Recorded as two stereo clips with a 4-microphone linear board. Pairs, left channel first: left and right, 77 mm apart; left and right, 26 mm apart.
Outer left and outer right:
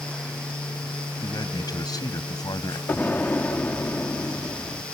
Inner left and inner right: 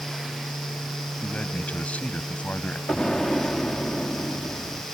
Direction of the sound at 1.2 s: 55° left (ahead or behind).